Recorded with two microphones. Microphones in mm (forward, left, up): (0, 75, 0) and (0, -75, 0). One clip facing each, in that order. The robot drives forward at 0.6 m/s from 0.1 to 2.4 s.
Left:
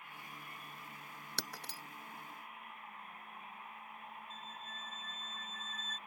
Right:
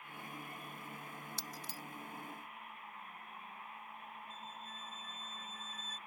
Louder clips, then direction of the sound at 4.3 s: Even; 10° right (ahead or behind).